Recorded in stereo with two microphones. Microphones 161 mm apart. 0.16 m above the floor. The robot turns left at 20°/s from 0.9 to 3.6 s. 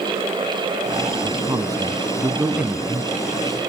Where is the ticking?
No ticking in this recording.